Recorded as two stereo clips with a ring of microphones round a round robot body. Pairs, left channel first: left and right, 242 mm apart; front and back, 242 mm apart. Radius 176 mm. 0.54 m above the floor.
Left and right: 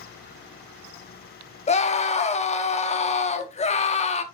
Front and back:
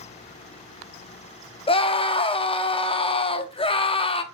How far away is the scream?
About 0.7 m.